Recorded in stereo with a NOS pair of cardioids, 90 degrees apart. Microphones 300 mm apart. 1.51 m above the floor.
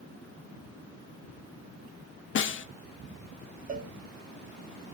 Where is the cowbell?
25° right, 0.9 m.